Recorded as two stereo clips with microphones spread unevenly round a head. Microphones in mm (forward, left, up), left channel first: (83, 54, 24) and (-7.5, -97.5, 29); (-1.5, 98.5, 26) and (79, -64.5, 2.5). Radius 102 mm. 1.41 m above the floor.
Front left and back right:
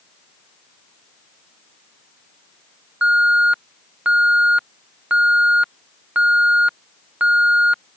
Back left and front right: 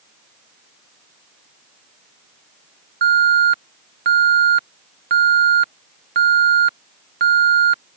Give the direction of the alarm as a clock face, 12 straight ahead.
1 o'clock.